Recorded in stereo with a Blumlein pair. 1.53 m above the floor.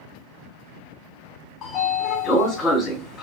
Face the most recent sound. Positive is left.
turn(degrees=30)